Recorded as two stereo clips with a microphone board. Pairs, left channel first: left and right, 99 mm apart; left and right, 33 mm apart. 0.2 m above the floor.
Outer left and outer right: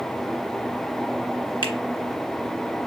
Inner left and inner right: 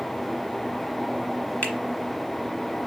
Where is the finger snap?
50° left (ahead or behind), 1.4 m.